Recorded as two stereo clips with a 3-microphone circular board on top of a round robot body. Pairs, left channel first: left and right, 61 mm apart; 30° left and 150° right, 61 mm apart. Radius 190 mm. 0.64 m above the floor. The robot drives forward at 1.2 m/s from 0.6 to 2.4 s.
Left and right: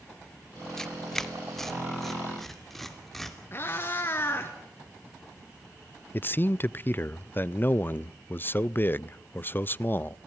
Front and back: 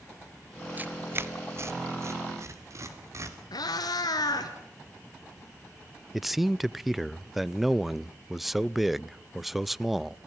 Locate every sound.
0.8 s tearing paper: 165° left, 1.3 m; by 3.4 s 175° left, 3 m
3.5 s a cat meowing: 35° left, 1.2 m
6.1 s a man speaking: 125° left, 0.5 m